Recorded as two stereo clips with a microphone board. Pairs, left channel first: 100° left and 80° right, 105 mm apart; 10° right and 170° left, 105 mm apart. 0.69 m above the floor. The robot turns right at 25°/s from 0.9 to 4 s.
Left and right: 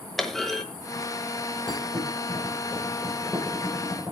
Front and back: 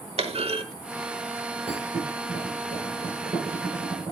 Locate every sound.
0.2 s a clunk: 170° right, 1.0 m
1.7 s a thud: 150° left, 6.5 m; by 4.1 s 155° right, 6.5 m